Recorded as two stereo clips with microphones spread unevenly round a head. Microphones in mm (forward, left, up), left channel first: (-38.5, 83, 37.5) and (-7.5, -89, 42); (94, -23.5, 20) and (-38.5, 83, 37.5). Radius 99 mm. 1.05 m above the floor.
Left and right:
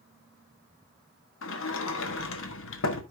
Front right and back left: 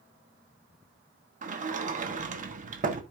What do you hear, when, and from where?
1.4 s a sliding door: 95° left, 1.2 m